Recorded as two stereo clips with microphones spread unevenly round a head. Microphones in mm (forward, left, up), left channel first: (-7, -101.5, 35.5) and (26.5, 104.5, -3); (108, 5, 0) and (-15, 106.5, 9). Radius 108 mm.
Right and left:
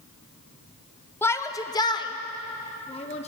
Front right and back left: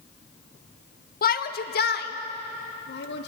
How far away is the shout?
About 1.5 m.